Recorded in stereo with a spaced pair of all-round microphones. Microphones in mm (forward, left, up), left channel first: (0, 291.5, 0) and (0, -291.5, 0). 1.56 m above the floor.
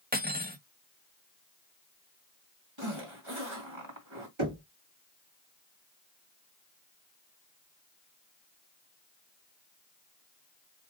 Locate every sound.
0.1 s cutlery clinking: 15° right (ahead or behind), 0.8 m
2.8 s a zipper: 50° right (ahead or behind), 2 m
4.4 s knocking: 50° right (ahead or behind), 1.7 m